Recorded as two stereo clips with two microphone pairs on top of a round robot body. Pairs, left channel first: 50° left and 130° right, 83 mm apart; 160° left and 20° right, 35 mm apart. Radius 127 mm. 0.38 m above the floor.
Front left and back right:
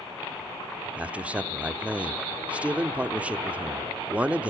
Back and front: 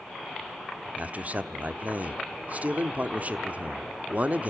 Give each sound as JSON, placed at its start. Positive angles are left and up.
{"t": 1.0, "sound": "a man speaking", "azimuth_deg": -50, "distance_m": 1.2}